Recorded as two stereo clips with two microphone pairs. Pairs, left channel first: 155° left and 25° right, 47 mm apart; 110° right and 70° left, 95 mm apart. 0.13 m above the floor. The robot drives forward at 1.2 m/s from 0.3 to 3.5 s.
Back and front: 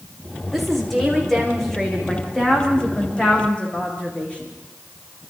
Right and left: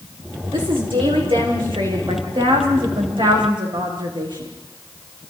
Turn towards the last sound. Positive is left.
turn(degrees=95)